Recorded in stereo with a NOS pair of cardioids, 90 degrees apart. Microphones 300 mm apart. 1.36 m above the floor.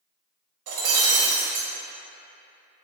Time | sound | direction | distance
0.7 | breaking glass | 55° right | 1.5 m